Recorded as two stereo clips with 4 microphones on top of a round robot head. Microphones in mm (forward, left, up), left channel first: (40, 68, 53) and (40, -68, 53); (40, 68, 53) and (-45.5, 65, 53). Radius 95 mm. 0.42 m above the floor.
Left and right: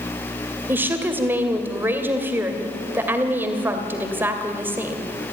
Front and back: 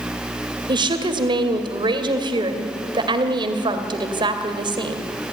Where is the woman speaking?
165° right, 2 m.